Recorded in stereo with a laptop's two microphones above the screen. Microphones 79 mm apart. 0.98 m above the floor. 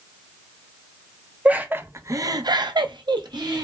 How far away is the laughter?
About 0.7 m.